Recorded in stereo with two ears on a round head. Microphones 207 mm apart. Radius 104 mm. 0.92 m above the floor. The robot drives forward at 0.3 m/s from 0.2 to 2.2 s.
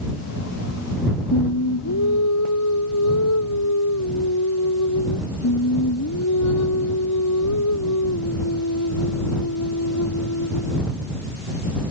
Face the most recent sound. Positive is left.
turn(degrees=85)